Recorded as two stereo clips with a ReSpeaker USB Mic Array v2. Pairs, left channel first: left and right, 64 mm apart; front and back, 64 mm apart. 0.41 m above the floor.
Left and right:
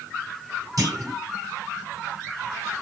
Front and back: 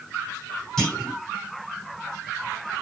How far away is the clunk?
About 1.7 m.